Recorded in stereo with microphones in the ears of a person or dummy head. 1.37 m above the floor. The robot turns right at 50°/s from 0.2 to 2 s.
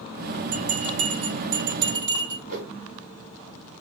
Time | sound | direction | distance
0.5 | a bell | 55° right (ahead or behind) | 4 m
2.5 | a whoosh | 45° right (ahead or behind) | 3.5 m